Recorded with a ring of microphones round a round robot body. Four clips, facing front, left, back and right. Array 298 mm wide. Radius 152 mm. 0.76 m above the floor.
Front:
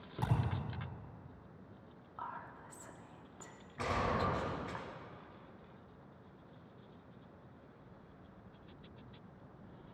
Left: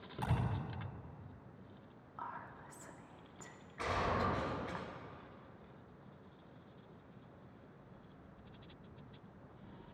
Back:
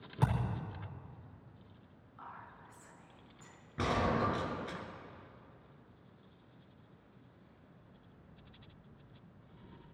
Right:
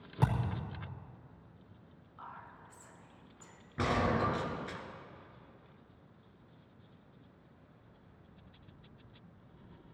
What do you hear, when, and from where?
0.2 s a thud: 125° right, 5.5 m
2.2 s whispering: 35° left, 1.6 m
3.8 s a gunshot: 125° right, 3 m